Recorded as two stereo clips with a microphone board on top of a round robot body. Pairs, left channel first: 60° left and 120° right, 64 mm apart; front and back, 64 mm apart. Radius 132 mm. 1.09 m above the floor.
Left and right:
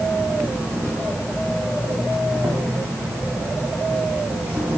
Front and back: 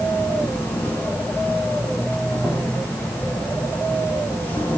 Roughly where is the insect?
Ahead right.